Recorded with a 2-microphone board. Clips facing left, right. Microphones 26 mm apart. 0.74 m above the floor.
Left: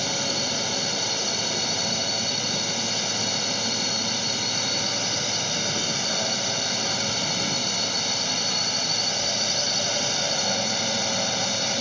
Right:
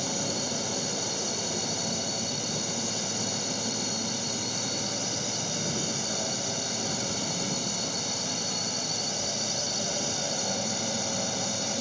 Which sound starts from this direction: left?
A drone, at 0.0 s.